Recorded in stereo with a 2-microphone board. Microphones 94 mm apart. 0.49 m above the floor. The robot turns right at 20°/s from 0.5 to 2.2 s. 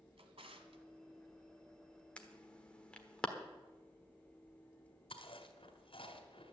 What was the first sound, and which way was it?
A drawer, 80° right.